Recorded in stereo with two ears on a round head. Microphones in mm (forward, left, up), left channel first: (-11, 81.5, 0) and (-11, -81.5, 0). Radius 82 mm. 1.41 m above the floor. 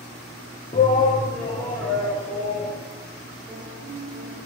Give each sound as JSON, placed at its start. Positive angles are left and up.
{"t": 0.7, "sound": "a shout", "side_deg": 35, "distance_m": 0.6}
{"t": 3.5, "sound": "a piano", "side_deg": 20, "distance_m": 4.0}